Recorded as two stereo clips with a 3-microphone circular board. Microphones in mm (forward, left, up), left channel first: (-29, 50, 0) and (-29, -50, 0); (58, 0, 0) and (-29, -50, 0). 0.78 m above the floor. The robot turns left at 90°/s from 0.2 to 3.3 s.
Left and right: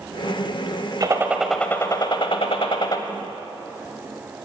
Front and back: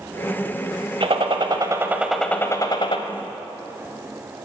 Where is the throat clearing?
No throat clearing in this recording.